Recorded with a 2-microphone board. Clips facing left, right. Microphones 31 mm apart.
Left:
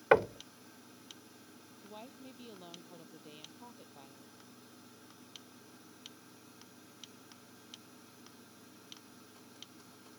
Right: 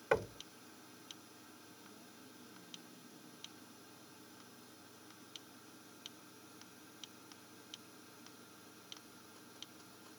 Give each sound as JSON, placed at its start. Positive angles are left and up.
{"t": 0.1, "sound": "knocking", "side_deg": 35}
{"t": 1.8, "sound": "a woman speaking", "side_deg": 70}